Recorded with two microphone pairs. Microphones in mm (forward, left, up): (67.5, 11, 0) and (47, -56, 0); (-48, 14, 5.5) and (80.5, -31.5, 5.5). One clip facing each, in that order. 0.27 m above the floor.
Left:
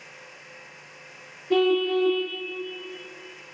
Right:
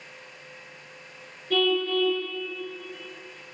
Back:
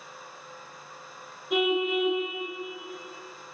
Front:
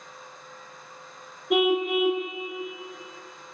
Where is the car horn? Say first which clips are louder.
Left 3 dB, front 3 dB; 10° left, 5 m.